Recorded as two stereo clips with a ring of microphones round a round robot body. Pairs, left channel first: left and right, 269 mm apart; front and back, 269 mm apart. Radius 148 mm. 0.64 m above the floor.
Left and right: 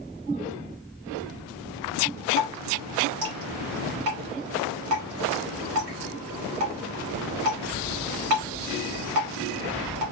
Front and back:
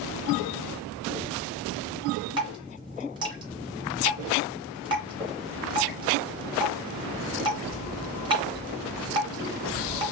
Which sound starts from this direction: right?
Dripping, at 2.4 s.